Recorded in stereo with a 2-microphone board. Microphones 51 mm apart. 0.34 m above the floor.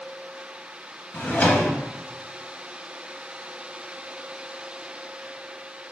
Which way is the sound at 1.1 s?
35° left (ahead or behind).